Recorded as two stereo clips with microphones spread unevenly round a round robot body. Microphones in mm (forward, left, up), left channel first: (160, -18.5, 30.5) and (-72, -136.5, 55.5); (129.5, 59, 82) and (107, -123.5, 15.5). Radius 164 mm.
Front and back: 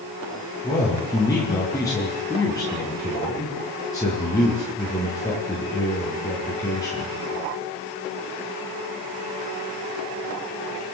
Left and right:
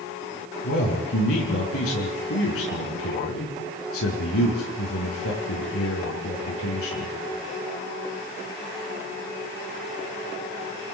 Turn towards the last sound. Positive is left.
turn(degrees=105)